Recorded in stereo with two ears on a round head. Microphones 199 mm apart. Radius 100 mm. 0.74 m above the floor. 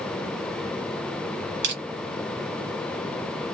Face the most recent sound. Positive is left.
turn(degrees=-45)  # may be behind; listen again after turning